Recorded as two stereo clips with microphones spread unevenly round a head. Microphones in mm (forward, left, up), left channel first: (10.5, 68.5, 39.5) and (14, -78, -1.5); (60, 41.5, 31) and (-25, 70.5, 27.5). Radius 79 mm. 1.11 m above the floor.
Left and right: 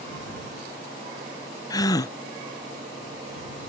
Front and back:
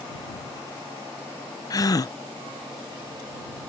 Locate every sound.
1.7 s a gasp: 20° left